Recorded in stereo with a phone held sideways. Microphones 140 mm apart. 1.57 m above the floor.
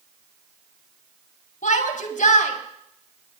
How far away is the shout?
About 4 m.